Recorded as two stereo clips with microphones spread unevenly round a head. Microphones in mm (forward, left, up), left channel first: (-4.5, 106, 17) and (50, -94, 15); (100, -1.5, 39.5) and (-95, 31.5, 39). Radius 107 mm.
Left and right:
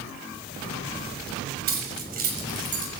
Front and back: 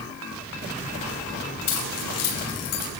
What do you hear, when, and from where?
1.7 s keys jangling: 25° right, 6.5 m; by 2.9 s 20° right, 6 m